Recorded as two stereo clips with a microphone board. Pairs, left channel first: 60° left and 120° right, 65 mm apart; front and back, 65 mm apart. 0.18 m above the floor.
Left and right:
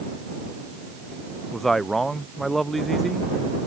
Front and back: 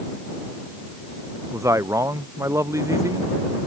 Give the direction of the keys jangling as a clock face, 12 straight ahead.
No keys jangling in this recording.